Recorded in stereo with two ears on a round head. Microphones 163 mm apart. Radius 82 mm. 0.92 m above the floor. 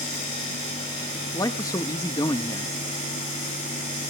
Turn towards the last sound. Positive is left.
turn(degrees=20)  # may be behind; listen again after turning